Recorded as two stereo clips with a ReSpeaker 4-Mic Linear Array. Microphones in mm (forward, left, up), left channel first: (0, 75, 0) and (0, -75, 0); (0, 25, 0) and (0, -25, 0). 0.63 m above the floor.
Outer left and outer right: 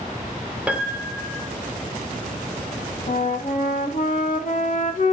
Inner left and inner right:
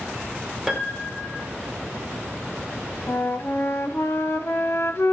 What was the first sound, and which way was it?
A piano, 10° right (ahead or behind).